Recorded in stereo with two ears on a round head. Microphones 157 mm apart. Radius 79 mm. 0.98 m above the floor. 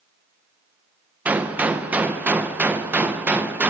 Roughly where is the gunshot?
Centre.